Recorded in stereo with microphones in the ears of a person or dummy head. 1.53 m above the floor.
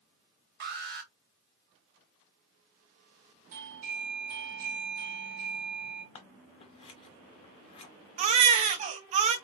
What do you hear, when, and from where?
0.6 s an alarm: 55° right (ahead or behind), 1.2 m
3.5 s a doorbell: 40° right (ahead or behind), 1.1 m
6.2 s scissors: 25° left (ahead or behind), 0.7 m
8.2 s a baby crying: 40° right (ahead or behind), 0.6 m